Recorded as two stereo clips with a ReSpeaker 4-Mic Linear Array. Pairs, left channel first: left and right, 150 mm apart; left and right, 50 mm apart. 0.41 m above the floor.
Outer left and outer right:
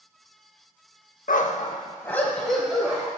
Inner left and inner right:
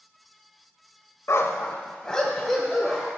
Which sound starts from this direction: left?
A dog barking, at 1.3 s.